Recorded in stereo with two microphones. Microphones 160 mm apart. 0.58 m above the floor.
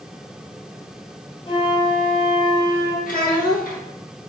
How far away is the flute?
About 0.9 m.